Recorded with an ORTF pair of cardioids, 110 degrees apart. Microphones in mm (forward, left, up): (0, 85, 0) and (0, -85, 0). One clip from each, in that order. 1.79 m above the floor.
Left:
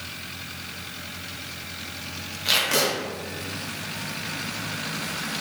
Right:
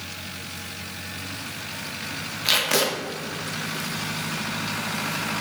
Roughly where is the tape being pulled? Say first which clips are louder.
Even; ahead.